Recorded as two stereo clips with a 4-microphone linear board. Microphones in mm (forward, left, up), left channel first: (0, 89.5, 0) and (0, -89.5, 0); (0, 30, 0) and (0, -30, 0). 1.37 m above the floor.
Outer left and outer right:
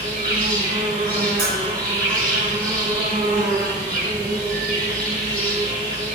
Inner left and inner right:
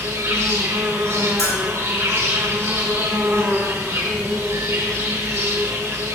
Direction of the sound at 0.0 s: 50° right (ahead or behind).